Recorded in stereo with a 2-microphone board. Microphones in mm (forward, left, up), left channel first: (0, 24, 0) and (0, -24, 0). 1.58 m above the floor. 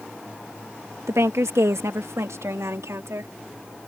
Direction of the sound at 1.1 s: 85° right.